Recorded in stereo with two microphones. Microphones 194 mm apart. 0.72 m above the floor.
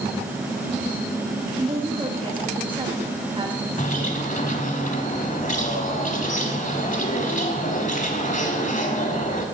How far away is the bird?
About 1.1 m.